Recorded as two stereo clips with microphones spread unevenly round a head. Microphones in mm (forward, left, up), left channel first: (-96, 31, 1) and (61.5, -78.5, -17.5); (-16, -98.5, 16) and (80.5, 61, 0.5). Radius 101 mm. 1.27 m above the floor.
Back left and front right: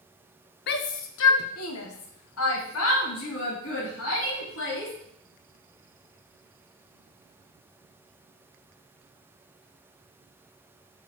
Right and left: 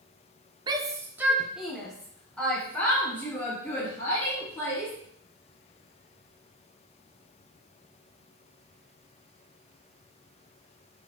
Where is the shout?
115° left, 0.7 m; by 4.9 s 160° left, 3 m.